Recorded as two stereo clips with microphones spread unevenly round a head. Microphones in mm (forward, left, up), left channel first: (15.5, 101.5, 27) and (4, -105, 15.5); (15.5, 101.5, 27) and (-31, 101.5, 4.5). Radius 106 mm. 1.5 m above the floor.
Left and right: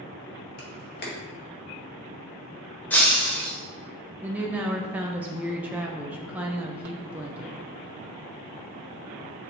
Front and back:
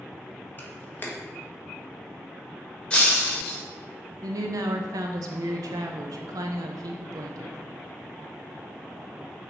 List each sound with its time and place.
0.6 s a camera shutter: 40° left, 1.7 m
2.9 s breaking glass: 10° left, 1.6 m
4.2 s a woman speaking: 175° right, 0.5 m